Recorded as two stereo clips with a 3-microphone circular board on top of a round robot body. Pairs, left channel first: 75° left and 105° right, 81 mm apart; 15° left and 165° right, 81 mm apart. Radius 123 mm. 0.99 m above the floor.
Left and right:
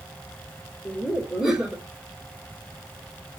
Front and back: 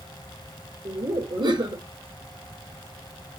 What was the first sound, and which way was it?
Laughter, 170° left.